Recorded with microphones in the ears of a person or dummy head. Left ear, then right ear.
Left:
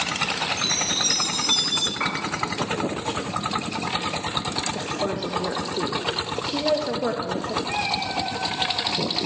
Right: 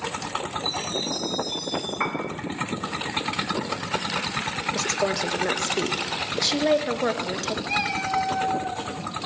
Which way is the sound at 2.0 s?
20° right (ahead or behind).